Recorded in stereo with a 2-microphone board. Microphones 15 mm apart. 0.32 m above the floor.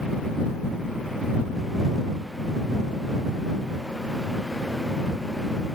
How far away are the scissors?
I don't hear scissors.